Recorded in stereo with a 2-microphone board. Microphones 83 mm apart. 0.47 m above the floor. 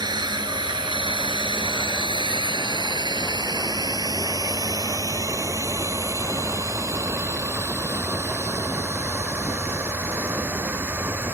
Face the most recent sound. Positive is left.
turn(degrees=-30)  # may be behind; listen again after turning